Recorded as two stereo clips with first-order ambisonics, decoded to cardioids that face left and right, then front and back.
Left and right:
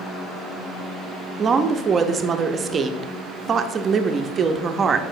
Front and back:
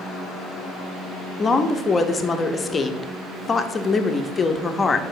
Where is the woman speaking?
55° right, 0.5 m.